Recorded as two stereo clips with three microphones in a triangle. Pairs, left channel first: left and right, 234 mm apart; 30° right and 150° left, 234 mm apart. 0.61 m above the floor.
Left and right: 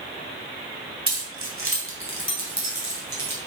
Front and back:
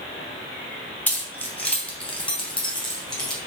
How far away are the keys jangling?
About 2.5 m.